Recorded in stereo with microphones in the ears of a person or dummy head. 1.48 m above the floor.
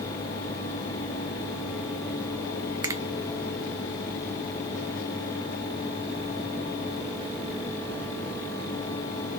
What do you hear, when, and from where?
2.8 s a finger snap: 20° right (ahead or behind), 0.6 m